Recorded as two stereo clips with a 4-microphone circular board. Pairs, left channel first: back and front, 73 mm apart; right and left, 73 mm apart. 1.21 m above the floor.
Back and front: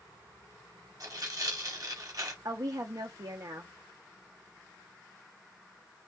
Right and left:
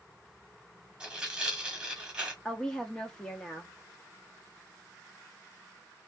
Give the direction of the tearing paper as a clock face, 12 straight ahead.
11 o'clock.